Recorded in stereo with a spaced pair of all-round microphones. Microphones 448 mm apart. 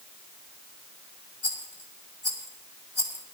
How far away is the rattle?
About 2.5 m.